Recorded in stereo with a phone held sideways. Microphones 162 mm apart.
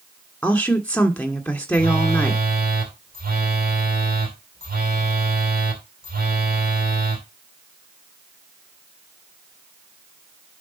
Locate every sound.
0.4 s a woman speaking: 10° left (ahead or behind), 1.9 m
1.7 s a phone buzzing: 65° right (ahead or behind), 3 m